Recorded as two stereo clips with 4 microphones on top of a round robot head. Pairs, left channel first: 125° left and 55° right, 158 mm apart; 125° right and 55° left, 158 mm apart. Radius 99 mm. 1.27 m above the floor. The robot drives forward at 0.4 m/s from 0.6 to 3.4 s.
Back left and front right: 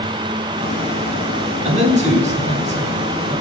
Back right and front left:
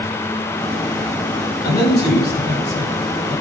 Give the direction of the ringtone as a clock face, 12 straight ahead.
I don't hear a ringtone.